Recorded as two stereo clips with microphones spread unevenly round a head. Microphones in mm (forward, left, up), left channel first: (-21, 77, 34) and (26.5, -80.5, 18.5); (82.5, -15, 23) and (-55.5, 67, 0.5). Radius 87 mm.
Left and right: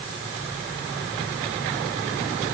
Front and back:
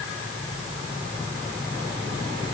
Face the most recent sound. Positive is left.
No sound to turn to.